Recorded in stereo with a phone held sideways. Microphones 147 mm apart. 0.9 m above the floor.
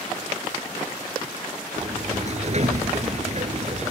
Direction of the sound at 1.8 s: 50° right (ahead or behind).